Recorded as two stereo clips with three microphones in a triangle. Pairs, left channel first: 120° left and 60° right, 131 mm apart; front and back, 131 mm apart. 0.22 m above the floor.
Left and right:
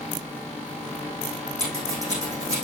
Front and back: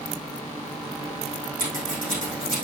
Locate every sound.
1.6 s scissors: straight ahead, 5.5 m